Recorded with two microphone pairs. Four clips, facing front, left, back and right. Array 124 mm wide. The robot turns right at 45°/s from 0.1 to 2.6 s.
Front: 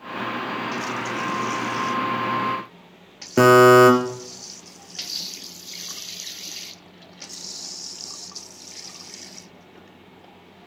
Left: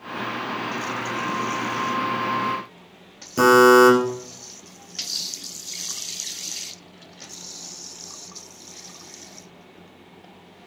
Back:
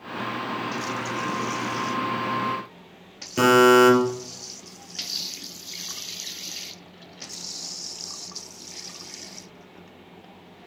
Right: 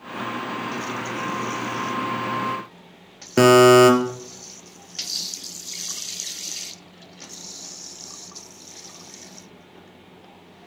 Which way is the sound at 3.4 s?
40° right.